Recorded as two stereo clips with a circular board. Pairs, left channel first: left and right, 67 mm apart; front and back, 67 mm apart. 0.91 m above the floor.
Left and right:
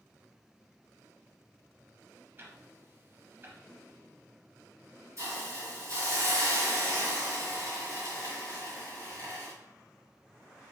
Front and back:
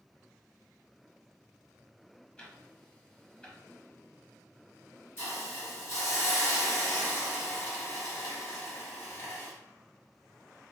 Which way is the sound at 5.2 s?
50° right.